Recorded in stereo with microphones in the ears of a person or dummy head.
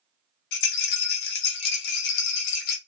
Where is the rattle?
70° left (ahead or behind), 1.1 m.